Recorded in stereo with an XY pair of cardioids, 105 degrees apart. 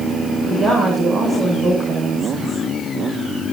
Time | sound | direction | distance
0.5 | a woman speaking | 40° right | 9 m